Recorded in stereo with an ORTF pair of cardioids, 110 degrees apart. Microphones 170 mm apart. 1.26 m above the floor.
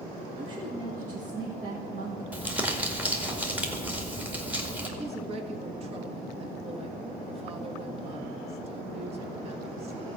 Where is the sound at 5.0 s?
35° right, 1.8 m.